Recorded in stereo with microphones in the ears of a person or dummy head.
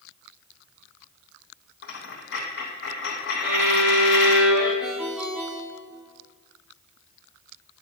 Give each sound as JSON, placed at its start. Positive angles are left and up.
{"t": 1.8, "sound": "a dropped coin", "side_deg": 65, "distance_m": 3.0}
{"t": 3.4, "sound": "a violin", "side_deg": -60, "distance_m": 3.5}
{"t": 4.8, "sound": "a ringtone", "side_deg": -5, "distance_m": 0.8}